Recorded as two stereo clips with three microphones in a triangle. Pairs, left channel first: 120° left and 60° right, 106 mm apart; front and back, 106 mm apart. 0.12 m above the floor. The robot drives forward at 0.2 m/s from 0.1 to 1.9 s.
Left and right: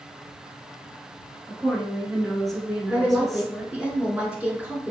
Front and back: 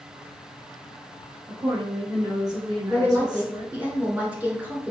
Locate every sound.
1.5 s a woman speaking: 150° right, 1.4 m
2.9 s a woman speaking: 125° right, 1.3 m